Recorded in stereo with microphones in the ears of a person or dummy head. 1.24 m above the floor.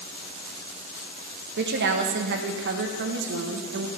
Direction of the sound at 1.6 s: 65° right (ahead or behind).